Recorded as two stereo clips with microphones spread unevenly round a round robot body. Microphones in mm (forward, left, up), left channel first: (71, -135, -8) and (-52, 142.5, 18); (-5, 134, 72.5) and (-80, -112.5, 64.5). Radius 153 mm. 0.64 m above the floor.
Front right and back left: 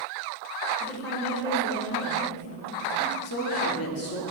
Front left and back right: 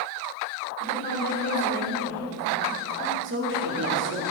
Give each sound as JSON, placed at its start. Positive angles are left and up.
{"t": 0.8, "sound": "a woman speaking", "azimuth_deg": 15, "distance_m": 3.0}
{"t": 3.2, "sound": "a woman speaking", "azimuth_deg": -85, "distance_m": 1.5}